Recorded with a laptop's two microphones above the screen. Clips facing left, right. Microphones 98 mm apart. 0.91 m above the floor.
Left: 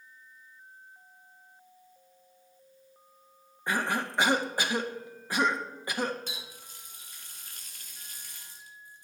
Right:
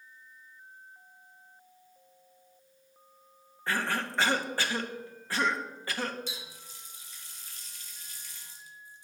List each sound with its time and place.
3.7 s a cough: 15° left (ahead or behind), 0.7 m
6.3 s a running tap: 55° left (ahead or behind), 1.2 m